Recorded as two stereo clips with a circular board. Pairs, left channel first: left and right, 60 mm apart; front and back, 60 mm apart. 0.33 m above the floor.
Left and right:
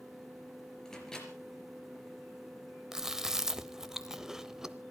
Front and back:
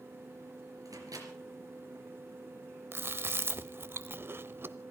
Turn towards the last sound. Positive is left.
turn(degrees=-165)